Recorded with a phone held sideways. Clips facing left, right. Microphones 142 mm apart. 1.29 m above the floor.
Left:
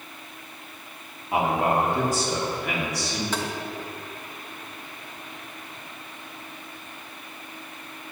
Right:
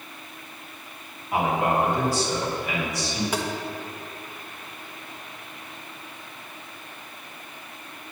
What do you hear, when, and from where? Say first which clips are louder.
1.3 s a man speaking: even; 20° left (ahead or behind), 3 m; by 3.2 s 70° left (ahead or behind), 4 m
3.3 s tapping: right 2 dB; 10° right (ahead or behind), 1.4 m